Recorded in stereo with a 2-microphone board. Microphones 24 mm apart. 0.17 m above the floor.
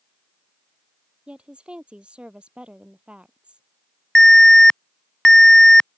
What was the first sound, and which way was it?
A woman speaking, 50° right (ahead or behind).